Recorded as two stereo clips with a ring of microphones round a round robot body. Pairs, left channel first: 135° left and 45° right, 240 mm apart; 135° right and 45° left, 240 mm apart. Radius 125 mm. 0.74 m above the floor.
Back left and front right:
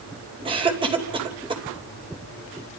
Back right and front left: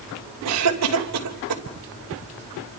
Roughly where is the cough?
Ahead left.